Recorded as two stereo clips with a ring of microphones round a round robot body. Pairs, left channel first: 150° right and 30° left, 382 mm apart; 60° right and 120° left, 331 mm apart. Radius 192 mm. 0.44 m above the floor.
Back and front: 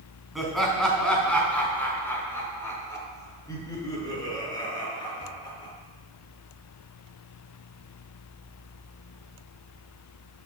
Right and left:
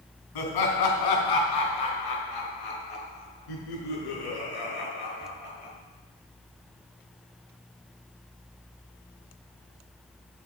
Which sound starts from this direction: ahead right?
Laughter, at 0.3 s.